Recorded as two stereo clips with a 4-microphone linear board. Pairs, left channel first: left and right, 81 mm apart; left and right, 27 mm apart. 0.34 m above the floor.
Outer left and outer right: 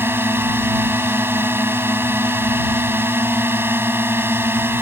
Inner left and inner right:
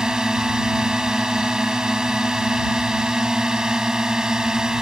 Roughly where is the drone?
Right.